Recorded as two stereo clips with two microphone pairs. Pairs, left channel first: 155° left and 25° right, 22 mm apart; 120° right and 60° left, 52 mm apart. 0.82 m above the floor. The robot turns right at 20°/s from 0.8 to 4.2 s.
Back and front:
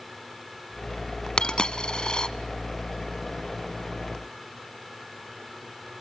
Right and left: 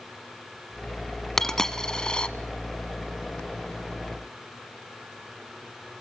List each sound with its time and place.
1.4 s a dropped coin: 160° left, 0.9 m; by 2.3 s straight behind, 0.9 m